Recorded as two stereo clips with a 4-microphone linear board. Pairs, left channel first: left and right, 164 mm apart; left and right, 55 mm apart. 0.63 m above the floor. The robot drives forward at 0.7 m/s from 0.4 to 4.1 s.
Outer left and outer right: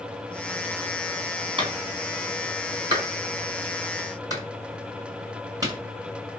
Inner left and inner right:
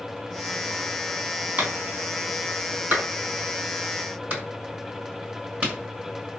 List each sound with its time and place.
1.6 s a clap: 30° right (ahead or behind), 5 m; by 5.8 s 25° right (ahead or behind), 6.5 m